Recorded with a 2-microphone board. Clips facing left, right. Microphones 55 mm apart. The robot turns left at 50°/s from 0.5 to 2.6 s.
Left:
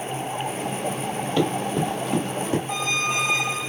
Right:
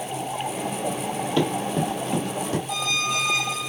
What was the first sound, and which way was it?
Running footsteps, centre (ahead or behind).